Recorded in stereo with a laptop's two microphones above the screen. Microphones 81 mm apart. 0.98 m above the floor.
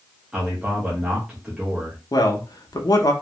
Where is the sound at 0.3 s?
10° right (ahead or behind), 0.6 m.